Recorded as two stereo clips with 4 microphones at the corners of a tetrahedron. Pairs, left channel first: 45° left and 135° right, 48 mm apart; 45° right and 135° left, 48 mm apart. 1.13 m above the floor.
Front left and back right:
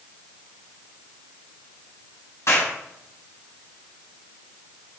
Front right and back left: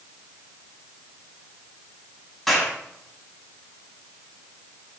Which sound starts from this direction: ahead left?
A clap, at 2.5 s.